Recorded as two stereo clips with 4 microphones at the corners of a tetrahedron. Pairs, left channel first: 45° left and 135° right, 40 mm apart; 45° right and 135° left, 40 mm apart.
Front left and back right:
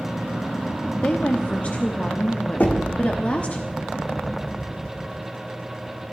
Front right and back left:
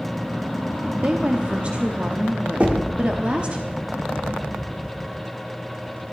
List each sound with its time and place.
1.0 s a woman speaking: 90° left, 1.0 m
2.6 s knocking: 85° left, 1.5 m